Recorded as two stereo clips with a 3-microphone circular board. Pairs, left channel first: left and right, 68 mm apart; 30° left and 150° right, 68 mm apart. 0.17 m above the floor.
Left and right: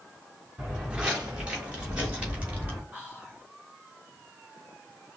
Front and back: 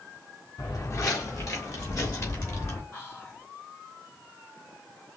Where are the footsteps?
10° right, 3 m; by 2.8 s 20° right, 4 m.